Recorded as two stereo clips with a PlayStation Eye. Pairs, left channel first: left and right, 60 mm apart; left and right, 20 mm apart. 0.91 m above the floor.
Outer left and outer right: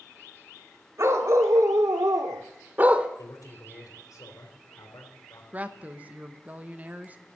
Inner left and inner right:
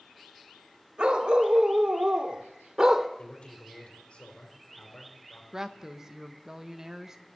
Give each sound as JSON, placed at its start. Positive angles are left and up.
{"t": 1.0, "sound": "a dog barking", "side_deg": -55, "distance_m": 1.8}
{"t": 3.2, "sound": "a man speaking", "side_deg": 70, "distance_m": 3.5}
{"t": 5.5, "sound": "a woman speaking", "side_deg": -25, "distance_m": 0.9}